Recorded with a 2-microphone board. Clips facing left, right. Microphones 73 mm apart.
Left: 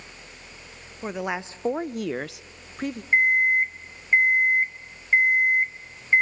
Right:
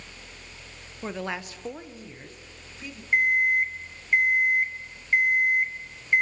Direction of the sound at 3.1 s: 25° left (ahead or behind).